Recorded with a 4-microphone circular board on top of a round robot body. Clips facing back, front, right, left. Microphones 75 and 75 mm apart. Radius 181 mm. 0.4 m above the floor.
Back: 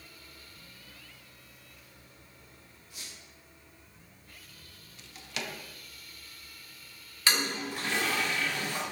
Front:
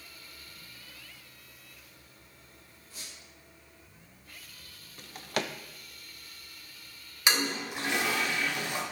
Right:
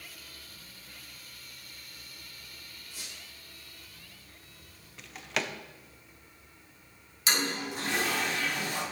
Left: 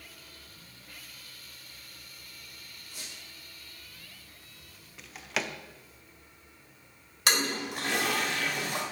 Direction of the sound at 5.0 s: 5° left.